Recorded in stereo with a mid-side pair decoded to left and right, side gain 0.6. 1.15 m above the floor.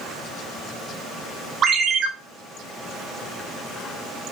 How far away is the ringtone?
About 1.0 m.